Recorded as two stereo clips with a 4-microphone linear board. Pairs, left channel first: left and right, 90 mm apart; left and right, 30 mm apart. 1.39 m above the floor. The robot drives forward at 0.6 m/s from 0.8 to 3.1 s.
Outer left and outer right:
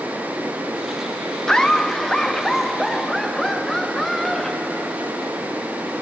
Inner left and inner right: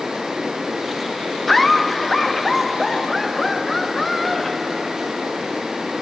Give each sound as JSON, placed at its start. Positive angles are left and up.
{"t": 1.5, "sound": "laughter", "side_deg": 5, "distance_m": 0.6}